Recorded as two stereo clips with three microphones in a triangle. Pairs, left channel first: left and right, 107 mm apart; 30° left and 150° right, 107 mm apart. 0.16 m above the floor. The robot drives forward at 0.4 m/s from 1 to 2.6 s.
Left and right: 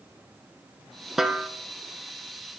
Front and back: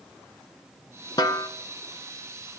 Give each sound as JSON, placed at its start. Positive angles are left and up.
{"t": 1.2, "sound": "a snare drum", "azimuth_deg": -5, "distance_m": 0.9}